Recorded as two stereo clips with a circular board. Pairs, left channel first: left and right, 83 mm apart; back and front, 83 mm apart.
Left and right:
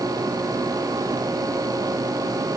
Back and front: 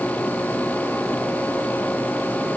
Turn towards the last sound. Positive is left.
No sound to turn to.